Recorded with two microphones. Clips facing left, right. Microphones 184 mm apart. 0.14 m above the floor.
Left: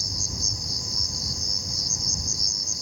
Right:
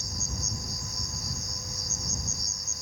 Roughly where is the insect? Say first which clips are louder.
Left 2 dB; left.